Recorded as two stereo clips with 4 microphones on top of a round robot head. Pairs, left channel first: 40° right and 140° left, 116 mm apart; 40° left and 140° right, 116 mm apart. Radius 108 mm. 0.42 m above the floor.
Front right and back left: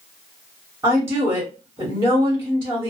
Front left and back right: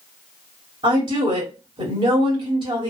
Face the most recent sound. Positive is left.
turn(degrees=-160)